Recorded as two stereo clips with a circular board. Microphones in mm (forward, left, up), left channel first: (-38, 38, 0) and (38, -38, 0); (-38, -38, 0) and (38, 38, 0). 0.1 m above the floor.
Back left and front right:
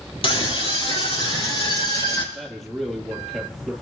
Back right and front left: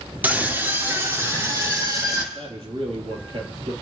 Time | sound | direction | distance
0.2 | a scream | 115° left | 3 m
2.3 | a man speaking | 45° left | 3 m